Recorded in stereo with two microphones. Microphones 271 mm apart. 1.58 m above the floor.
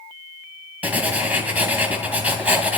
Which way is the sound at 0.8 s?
5° right (ahead or behind).